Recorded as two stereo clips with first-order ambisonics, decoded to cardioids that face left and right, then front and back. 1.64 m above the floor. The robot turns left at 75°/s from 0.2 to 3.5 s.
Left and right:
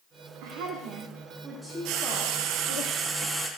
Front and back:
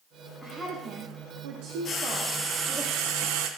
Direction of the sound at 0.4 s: 90° right.